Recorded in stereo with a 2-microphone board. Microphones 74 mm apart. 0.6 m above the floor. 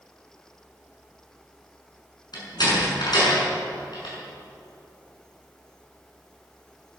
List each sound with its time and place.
2.3 s a door slam: 70° left (ahead or behind), 5.5 m